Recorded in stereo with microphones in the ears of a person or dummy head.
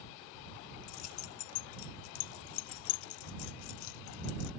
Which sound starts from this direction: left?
Keys jangling, at 0.9 s.